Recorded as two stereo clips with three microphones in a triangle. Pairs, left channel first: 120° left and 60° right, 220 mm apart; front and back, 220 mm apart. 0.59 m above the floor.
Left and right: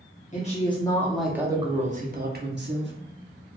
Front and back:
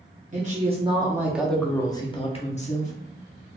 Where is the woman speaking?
150° left, 0.7 m; by 2.9 s 50° right, 1.0 m.